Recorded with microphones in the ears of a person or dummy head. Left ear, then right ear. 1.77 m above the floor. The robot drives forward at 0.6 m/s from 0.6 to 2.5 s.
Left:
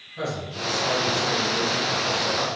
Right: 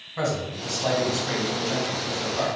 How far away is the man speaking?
About 1.4 m.